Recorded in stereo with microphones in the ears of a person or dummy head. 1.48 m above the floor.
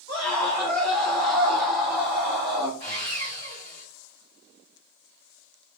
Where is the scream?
30° left (ahead or behind), 1.5 m; by 2.7 s 20° right (ahead or behind), 2 m.